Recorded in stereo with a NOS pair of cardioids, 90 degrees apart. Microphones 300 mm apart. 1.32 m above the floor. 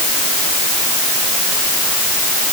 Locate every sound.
Only background noise.